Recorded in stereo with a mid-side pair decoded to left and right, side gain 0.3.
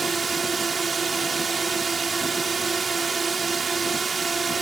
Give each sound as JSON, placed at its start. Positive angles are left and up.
{"t": 0.0, "sound": "a drone", "azimuth_deg": -50}